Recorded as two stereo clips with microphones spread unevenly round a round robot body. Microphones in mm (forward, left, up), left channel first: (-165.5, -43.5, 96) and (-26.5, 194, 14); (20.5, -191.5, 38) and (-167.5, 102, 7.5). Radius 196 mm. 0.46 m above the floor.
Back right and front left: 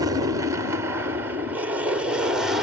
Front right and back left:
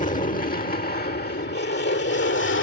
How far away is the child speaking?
No child speaking in this recording.